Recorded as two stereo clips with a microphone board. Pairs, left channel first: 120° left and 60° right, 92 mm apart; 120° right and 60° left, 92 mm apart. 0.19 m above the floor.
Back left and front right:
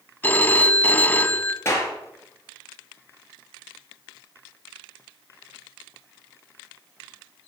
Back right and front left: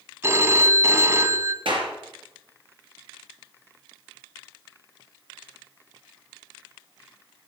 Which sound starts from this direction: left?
A phone ringing, at 0.2 s.